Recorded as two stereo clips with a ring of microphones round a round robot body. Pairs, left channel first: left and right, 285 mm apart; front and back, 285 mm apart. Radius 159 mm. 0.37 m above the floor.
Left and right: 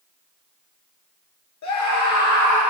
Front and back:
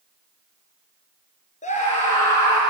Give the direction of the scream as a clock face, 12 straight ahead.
10 o'clock.